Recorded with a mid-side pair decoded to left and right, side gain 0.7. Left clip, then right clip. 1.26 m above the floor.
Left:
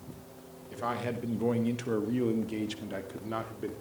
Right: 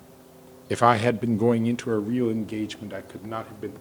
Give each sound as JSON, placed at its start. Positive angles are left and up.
{"t": 0.7, "sound": "a man speaking", "azimuth_deg": -60, "distance_m": 0.9}